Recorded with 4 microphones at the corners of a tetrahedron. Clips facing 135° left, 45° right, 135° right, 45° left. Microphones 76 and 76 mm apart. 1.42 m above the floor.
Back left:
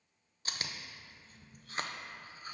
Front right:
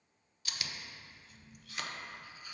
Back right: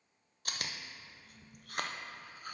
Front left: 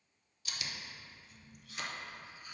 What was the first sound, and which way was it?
Chewing, 170° right.